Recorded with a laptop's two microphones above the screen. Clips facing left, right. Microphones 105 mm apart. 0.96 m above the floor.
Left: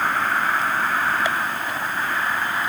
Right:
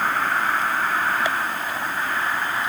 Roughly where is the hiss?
No hiss in this recording.